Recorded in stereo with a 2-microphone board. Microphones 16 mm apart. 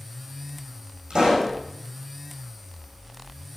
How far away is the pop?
About 7 m.